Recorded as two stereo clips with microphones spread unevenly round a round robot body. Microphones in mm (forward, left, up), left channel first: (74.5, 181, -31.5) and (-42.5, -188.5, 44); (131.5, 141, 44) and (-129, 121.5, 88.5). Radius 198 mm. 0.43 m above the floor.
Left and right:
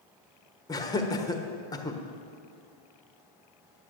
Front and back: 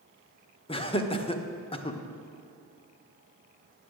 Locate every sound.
0.7 s laughter: 25° left, 1.2 m